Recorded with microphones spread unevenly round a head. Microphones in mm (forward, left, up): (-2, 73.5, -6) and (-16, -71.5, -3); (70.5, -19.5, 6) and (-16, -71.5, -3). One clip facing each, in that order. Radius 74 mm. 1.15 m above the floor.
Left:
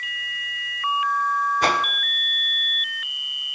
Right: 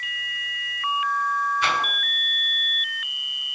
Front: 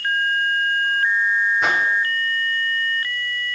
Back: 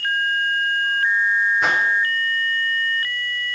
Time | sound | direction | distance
1.6 | a whoosh | 125° left | 0.7 m